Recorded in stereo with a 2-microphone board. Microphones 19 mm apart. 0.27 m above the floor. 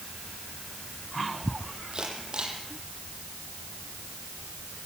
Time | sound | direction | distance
1.9 | a camera shutter | 45° right (ahead or behind) | 9.5 m